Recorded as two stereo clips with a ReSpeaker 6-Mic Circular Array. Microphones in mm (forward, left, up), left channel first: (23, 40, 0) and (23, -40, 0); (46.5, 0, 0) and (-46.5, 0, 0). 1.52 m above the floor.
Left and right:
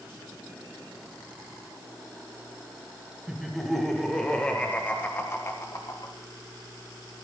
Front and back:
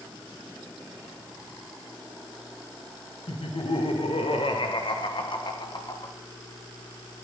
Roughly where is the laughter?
Ahead.